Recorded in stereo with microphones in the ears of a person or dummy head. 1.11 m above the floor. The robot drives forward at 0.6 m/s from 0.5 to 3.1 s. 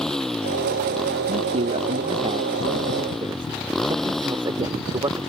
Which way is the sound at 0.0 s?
Centre (ahead or behind).